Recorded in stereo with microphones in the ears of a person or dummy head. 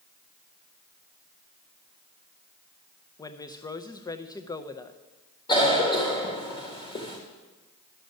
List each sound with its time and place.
3.2 s a woman speaking: 20° left (ahead or behind), 0.7 m
5.5 s a cough: 25° left (ahead or behind), 1.3 m